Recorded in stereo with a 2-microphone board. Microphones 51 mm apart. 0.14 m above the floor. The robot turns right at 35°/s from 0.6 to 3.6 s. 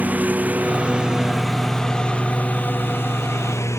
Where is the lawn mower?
30° right; by 3.8 s 75° left.